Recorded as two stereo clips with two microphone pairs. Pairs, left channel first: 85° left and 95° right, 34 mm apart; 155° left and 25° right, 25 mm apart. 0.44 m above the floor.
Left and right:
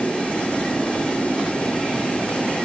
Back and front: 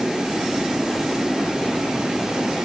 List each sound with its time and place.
Only background noise.